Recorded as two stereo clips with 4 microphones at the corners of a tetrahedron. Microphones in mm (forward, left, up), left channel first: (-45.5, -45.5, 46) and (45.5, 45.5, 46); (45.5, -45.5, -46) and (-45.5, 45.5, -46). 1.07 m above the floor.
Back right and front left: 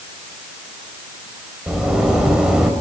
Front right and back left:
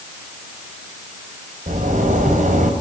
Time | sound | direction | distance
1.7 | a zipper | 130° left | 5 m